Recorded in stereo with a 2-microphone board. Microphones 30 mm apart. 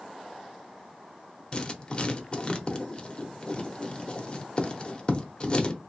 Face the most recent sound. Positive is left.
turn(degrees=35)  # may be behind; listen again after turning